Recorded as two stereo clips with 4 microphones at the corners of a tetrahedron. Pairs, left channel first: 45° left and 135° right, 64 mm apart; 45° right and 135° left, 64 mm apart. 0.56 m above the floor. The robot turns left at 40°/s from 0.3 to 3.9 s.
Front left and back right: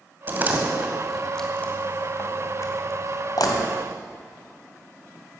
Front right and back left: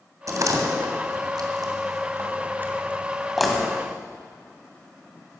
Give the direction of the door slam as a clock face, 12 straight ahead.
6 o'clock.